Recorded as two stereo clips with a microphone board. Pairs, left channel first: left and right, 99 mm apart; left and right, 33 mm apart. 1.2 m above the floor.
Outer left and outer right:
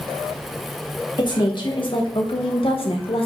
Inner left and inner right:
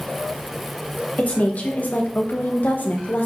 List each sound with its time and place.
1.2 s a woman speaking: 50° left (ahead or behind), 1.8 m; by 3.3 s 65° left (ahead or behind), 1.4 m